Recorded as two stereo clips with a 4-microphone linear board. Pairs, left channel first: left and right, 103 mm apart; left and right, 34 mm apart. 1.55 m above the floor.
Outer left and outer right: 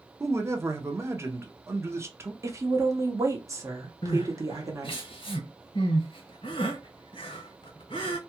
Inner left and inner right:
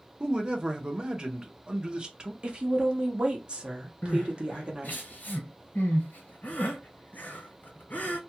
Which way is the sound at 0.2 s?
25° right (ahead or behind).